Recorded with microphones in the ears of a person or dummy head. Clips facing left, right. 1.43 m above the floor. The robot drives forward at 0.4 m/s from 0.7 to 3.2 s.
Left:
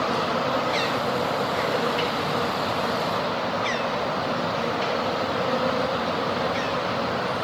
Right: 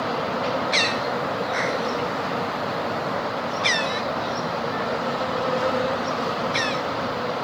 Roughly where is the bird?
Right.